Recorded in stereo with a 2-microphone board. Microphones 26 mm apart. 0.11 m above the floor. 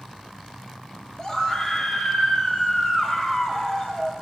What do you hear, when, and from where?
1.2 s a scream: 20° left (ahead or behind), 3.5 m